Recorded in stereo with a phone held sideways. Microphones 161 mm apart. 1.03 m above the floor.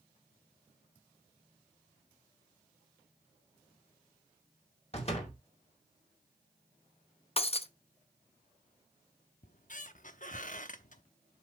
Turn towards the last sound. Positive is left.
turn(degrees=55)  # may be behind; listen again after turning